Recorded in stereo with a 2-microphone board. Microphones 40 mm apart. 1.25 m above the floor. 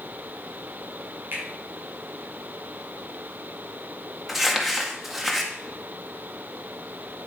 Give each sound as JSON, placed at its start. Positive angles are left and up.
{"t": 1.3, "sound": "a finger snap", "side_deg": -65, "distance_m": 4.0}
{"t": 4.3, "sound": "crumpling", "side_deg": -5, "distance_m": 1.7}